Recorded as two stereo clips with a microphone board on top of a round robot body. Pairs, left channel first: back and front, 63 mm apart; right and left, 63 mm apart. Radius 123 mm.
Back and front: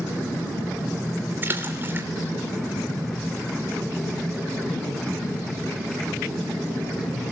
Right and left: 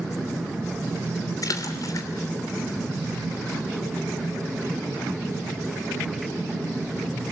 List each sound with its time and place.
1.4 s a splash: 60° right, 3 m